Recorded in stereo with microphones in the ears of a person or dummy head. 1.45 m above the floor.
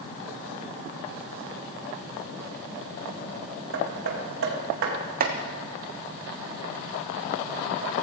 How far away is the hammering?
About 1.9 m.